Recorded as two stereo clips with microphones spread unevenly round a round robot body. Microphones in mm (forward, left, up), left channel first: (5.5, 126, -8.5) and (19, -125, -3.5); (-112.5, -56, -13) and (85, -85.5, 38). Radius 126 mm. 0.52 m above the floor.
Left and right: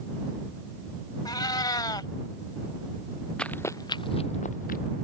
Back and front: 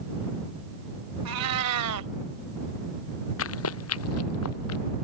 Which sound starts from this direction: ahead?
A cat meowing, at 1.2 s.